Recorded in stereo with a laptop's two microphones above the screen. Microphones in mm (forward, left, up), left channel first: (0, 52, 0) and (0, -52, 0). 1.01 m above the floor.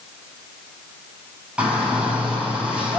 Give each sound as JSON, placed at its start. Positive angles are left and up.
{"t": 1.6, "sound": "a shout", "side_deg": -10, "distance_m": 6.5}